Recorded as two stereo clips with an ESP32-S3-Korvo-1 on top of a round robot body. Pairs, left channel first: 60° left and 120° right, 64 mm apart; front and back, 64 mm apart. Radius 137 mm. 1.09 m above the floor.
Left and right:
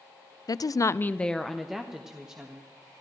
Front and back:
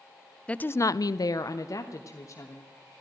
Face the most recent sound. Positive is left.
turn(degrees=-45)